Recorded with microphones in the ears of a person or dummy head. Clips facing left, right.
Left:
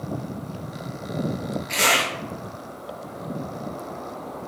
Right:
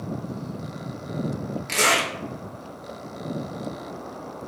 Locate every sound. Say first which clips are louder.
1.7 s a zipper: right 1 dB; 50° right (ahead or behind), 1.1 m